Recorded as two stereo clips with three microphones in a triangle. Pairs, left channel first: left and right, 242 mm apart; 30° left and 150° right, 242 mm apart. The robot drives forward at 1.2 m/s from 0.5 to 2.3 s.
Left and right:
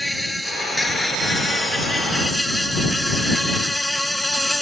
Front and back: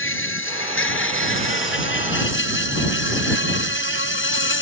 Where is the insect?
Straight ahead.